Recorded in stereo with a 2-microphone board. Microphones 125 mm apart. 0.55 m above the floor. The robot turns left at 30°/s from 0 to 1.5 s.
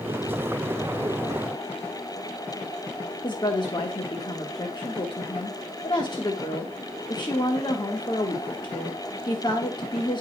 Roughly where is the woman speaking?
Left.